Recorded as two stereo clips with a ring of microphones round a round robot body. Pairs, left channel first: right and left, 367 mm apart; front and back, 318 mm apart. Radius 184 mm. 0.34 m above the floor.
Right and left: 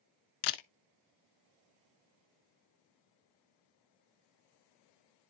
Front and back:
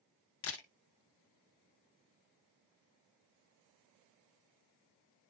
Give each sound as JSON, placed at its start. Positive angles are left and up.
{"t": 0.4, "sound": "a camera shutter", "azimuth_deg": -55, "distance_m": 0.7}